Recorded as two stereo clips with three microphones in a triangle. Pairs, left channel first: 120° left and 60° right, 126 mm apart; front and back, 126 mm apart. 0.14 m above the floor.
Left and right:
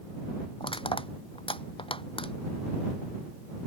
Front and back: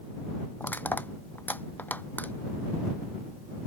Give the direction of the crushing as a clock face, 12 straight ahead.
9 o'clock.